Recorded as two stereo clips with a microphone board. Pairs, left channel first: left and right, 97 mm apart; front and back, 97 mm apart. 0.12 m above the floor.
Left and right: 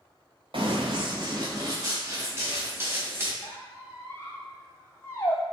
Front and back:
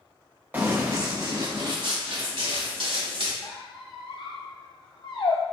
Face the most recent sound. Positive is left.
turn(degrees=30)